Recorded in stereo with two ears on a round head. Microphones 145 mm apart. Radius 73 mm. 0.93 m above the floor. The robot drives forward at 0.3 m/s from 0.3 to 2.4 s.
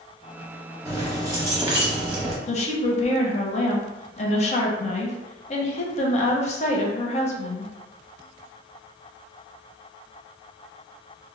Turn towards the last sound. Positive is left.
turn(degrees=40)  # may be behind; listen again after turning